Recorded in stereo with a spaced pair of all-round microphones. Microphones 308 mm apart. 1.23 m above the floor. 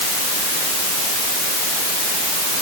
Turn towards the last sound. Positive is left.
No sound to turn to.